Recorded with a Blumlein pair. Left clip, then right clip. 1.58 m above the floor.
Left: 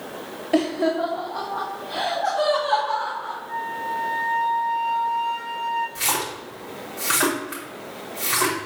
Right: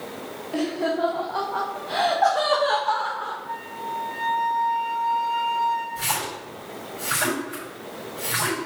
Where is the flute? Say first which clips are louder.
Left 4 dB; 20° right, 3.5 m.